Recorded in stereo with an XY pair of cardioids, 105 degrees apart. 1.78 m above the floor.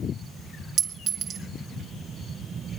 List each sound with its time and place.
0.8 s a clink: 65° right, 3 m